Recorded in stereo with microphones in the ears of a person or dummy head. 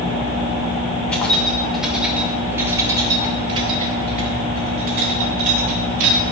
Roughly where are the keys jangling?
Centre.